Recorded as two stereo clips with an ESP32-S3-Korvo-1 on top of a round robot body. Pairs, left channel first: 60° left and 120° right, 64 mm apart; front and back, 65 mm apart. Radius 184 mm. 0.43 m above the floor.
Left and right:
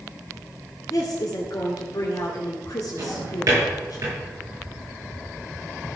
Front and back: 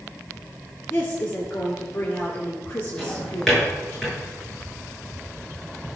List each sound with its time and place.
0.9 s a woman speaking: 50° left, 2.5 m
3.0 s a drawer: 85° right, 6 m